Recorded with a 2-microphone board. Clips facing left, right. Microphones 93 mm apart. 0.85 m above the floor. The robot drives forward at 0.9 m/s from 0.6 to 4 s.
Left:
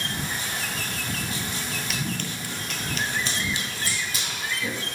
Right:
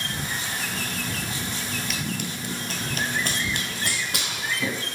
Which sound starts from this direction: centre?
Running footsteps, at 1.9 s.